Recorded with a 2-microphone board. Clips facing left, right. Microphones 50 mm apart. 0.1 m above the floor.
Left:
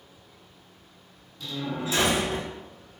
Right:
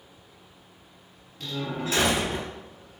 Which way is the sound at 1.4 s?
50° right (ahead or behind).